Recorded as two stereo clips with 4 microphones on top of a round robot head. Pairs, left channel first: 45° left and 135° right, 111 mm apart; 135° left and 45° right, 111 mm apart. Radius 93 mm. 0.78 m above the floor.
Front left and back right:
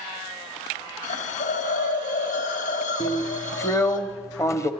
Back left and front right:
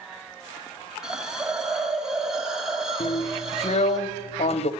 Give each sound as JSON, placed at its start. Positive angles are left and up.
{"t": 1.0, "sound": "a hiss", "azimuth_deg": 40, "distance_m": 1.8}
{"t": 3.0, "sound": "a drill", "azimuth_deg": 110, "distance_m": 1.2}